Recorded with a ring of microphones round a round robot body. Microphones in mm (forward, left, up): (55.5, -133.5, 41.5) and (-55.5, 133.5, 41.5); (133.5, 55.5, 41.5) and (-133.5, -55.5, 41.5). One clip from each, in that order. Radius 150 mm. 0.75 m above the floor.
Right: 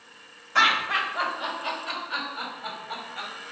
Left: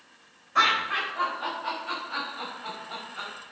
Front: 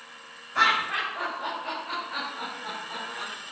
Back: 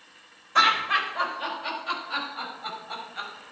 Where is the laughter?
125° right, 4 m; by 3.4 s 145° right, 5 m.